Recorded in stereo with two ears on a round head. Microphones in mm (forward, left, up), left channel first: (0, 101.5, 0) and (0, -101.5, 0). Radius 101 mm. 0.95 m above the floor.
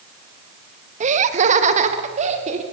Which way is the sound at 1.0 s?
30° right (ahead or behind).